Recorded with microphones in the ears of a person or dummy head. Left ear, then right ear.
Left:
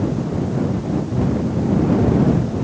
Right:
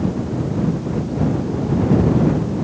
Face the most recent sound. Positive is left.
No sound to turn to.